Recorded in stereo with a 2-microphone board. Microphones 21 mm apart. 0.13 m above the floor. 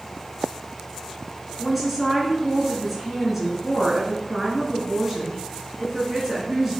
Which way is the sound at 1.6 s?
5° right (ahead or behind).